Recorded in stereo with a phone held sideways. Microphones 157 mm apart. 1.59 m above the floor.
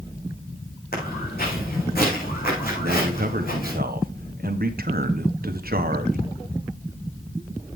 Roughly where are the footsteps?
Left.